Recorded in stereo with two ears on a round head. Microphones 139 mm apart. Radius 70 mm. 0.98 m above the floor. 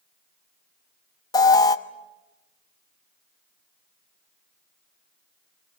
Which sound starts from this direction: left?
An alarm, at 1.3 s.